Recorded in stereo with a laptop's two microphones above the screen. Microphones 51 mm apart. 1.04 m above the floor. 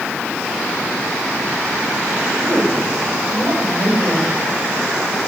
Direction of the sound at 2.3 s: 45° right (ahead or behind).